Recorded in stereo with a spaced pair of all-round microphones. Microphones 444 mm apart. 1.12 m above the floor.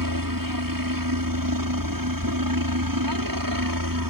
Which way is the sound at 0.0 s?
45° right (ahead or behind).